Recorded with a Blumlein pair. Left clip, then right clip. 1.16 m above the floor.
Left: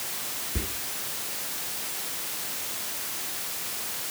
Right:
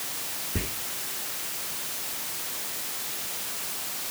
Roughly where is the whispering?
Ahead.